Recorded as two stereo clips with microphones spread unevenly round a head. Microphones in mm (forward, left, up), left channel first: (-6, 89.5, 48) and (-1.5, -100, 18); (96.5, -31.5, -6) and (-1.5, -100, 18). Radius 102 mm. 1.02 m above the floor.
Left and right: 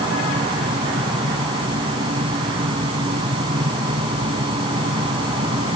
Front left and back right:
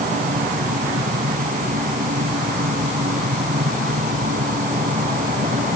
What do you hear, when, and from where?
0.0 s a fan: 155° right